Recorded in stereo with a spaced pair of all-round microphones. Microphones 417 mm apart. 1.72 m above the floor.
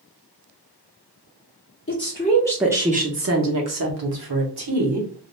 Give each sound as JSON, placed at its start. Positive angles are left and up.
{"t": 1.9, "sound": "a woman speaking", "side_deg": 30, "distance_m": 0.7}